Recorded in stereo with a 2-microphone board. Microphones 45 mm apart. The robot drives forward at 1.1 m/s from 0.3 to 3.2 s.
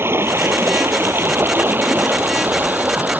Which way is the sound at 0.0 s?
70° right (ahead or behind).